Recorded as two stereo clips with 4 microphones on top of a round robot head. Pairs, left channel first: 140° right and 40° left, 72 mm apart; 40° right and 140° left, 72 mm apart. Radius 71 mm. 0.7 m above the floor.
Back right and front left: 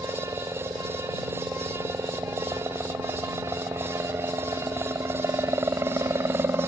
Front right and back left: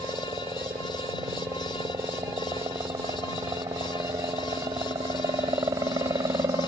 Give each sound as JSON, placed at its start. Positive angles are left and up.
{"t": 0.0, "sound": "a helicopter", "azimuth_deg": 95}